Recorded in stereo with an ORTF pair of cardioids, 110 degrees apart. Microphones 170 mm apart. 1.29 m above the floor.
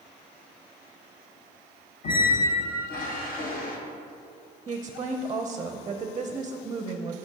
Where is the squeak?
55° left, 1.1 m.